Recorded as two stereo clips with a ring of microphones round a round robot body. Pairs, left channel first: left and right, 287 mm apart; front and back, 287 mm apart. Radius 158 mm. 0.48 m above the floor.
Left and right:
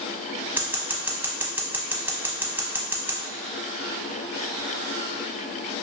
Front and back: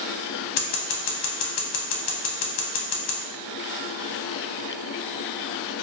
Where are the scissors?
5° right, 0.5 m.